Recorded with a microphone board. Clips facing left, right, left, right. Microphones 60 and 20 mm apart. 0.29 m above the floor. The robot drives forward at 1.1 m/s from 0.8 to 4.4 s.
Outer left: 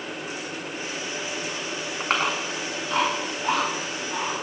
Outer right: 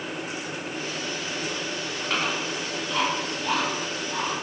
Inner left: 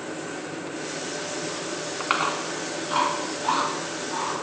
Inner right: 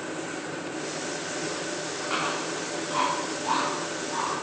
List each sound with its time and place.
2.0 s chewing: 55° left (ahead or behind), 2.5 m; by 4.3 s 30° left (ahead or behind), 4 m